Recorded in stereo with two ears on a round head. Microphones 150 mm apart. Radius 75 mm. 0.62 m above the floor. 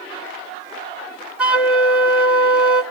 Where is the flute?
5° right (ahead or behind), 1.5 m.